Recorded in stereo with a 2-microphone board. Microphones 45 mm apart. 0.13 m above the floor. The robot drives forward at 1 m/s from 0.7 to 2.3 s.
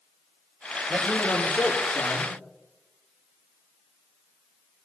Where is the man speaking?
30° left (ahead or behind), 6.5 m; by 2.3 s 25° left (ahead or behind), 7.5 m.